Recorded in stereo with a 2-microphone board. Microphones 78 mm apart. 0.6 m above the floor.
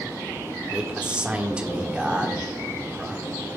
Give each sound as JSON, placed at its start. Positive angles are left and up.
{"t": 0.7, "sound": "a man speaking", "side_deg": -15, "distance_m": 1.5}